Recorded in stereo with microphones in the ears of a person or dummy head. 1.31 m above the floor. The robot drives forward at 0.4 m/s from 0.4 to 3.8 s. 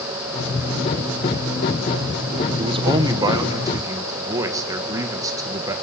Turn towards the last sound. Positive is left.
turn(degrees=-20)  # may be behind; listen again after turning